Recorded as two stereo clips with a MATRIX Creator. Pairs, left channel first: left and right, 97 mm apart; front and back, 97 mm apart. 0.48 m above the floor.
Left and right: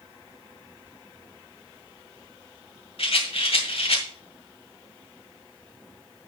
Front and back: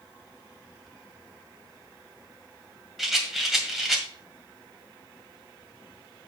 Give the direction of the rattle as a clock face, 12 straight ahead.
9 o'clock.